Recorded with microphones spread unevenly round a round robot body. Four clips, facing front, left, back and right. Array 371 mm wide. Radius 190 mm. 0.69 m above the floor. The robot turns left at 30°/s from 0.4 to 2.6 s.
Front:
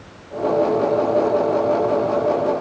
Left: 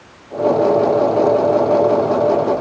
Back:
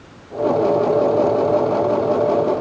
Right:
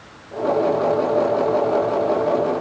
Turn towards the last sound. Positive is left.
No sound to turn to.